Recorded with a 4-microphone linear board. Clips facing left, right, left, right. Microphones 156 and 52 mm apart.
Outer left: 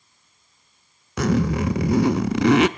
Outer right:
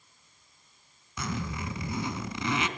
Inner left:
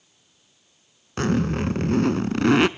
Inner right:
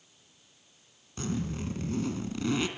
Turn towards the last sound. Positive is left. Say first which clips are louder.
# outer left 14 dB, inner left 11 dB
turn(degrees=70)  # may be behind; listen again after turning